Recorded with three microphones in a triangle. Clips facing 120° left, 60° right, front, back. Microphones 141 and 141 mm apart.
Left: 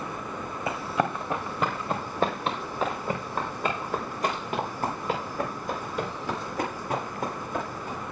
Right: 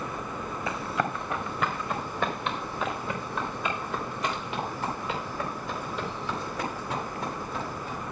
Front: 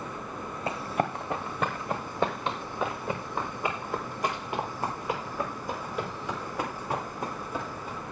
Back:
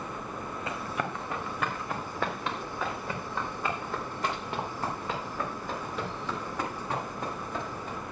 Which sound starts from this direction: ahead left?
Running footsteps, at 0.7 s.